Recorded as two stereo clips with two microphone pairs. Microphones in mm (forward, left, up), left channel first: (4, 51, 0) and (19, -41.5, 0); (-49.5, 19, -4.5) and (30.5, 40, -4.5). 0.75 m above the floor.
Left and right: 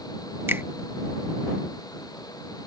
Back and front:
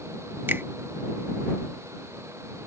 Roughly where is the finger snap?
Ahead right.